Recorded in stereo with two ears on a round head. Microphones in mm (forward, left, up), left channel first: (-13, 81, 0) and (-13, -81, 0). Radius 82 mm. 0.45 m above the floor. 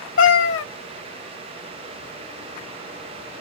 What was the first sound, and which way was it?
A cat meowing, 80° left.